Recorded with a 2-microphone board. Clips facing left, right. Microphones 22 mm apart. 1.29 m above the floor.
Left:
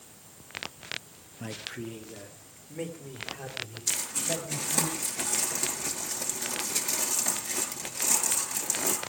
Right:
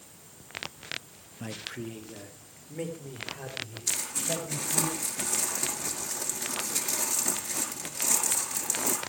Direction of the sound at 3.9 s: 5° left (ahead or behind).